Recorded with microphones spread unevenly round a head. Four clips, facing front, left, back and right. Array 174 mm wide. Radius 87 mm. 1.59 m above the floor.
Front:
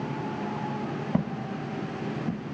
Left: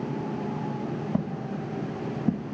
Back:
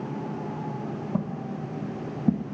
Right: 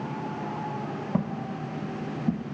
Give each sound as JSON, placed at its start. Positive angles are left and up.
{"t": 1.1, "sound": "footsteps", "azimuth_deg": -10, "distance_m": 1.8}